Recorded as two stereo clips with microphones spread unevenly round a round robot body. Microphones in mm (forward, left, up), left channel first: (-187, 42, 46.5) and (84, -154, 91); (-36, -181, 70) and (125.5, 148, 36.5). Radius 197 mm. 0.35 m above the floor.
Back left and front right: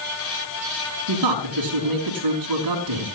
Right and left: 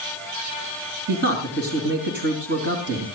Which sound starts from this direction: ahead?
A man speaking, at 1.1 s.